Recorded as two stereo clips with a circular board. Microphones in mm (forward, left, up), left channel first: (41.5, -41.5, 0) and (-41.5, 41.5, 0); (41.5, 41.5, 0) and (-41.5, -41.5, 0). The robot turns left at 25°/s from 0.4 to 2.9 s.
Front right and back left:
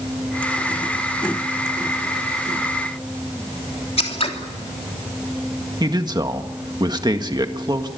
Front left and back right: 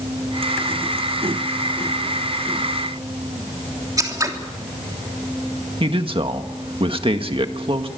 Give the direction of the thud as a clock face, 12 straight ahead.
I don't hear a thud.